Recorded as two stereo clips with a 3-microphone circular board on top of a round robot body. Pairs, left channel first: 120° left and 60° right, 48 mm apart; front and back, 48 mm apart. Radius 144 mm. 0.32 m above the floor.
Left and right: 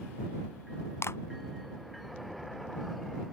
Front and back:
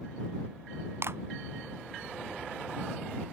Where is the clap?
150° left.